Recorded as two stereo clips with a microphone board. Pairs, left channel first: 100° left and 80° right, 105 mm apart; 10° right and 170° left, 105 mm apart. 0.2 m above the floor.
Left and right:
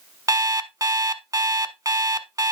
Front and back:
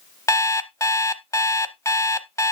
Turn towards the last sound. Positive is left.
turn(degrees=-55)